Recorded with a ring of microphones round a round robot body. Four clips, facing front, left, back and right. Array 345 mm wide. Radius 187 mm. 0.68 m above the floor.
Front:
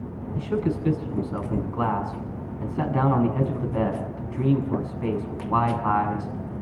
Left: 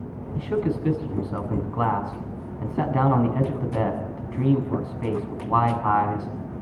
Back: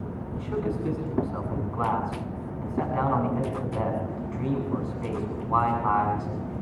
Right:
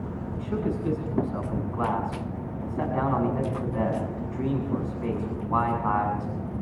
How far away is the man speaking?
About 7 m.